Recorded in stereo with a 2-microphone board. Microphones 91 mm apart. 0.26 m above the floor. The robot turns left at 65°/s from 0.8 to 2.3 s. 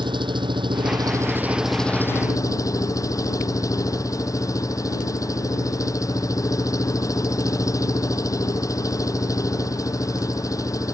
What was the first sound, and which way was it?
An engine running, 120° right.